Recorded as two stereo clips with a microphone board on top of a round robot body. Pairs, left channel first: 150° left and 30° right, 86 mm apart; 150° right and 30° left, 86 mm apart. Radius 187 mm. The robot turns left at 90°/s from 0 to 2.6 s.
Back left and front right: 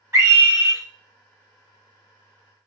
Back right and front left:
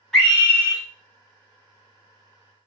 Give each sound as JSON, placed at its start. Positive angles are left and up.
{"t": 0.1, "sound": "a scream", "azimuth_deg": -65, "distance_m": 1.7}